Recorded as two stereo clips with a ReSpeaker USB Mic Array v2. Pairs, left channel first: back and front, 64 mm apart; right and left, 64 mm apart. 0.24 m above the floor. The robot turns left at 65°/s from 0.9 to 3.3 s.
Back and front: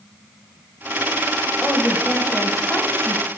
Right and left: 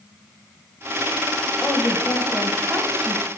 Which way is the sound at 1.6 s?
120° right.